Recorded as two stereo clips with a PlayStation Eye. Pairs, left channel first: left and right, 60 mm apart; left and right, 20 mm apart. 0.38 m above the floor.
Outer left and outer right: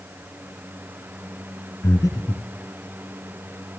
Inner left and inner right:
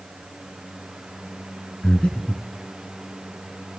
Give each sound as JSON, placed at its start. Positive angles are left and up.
{"t": 1.8, "sound": "breathing", "side_deg": 75, "distance_m": 2.5}